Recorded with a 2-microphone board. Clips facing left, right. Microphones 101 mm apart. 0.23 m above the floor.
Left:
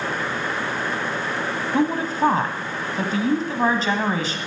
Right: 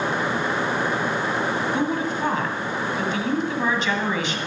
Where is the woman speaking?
40° left (ahead or behind), 1.4 m.